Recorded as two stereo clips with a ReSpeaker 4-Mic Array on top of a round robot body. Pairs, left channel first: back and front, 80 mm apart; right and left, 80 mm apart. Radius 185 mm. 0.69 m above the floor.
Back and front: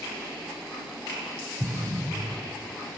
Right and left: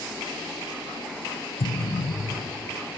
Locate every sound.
1.6 s an explosion: 80° right, 0.9 m